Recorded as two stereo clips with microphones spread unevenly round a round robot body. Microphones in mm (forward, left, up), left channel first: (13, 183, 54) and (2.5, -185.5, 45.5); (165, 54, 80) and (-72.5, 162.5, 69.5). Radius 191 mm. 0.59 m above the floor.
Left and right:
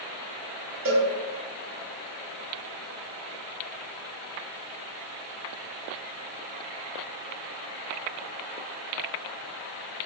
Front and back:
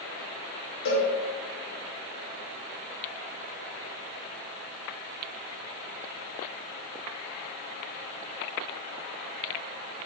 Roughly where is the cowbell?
Ahead right.